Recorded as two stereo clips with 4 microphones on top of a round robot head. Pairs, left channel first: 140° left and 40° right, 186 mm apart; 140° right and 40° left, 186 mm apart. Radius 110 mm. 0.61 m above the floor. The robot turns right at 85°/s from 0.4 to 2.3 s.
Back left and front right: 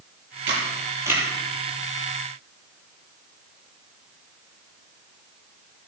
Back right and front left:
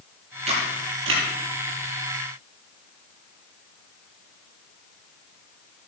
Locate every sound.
0.5 s a camera shutter: 15° right, 5 m; by 1.2 s 50° left, 5 m